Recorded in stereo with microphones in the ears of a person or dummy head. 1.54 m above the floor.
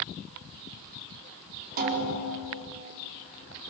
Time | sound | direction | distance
1.8 | a snare drum | 50° right (ahead or behind) | 5 m